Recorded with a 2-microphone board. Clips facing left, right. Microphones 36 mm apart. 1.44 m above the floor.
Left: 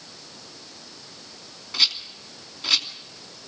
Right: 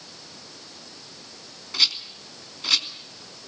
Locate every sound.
1.7 s a rattle: 10° left (ahead or behind), 2.5 m